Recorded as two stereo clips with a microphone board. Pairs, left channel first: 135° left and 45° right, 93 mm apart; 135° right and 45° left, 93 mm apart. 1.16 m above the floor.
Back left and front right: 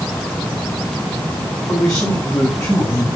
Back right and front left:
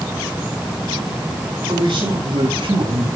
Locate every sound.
1.7 s a man speaking: 55° left, 6.5 m; by 3.1 s 60° left, 5.5 m